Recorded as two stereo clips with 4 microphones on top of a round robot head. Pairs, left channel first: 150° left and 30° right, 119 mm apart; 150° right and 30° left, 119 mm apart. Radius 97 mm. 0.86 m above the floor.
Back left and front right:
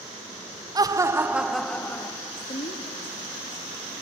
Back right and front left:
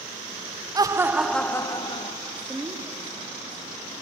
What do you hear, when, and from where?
0.8 s laughter: straight ahead, 1.2 m; by 2.1 s 150° right, 1.3 m
2.2 s a woman speaking: 110° left, 2 m